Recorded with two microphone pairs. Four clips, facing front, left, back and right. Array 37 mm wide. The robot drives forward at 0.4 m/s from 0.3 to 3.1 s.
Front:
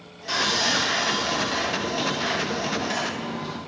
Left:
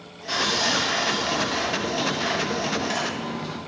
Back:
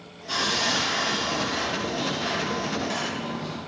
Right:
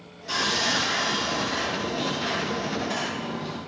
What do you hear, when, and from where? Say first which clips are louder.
0.3 s sawing: left 1 dB, front 2 dB; 25° left, 1.6 m; by 3.6 s 85° left, 1.0 m